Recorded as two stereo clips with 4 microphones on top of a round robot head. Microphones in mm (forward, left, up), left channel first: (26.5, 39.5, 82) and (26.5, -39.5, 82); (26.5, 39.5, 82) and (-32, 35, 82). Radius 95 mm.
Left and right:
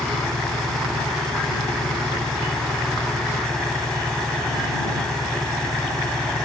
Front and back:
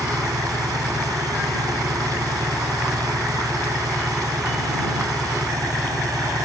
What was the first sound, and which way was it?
An engine running, 175° left.